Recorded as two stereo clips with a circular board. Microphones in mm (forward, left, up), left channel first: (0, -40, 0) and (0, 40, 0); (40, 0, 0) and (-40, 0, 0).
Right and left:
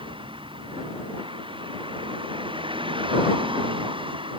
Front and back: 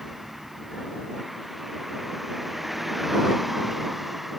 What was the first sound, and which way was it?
A vehicle, 95° left.